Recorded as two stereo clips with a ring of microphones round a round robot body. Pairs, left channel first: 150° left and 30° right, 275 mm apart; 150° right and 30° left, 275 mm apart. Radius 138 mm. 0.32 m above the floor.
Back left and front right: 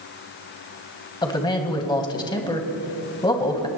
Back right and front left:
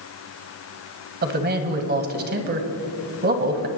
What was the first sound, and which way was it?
A man speaking, 80° left.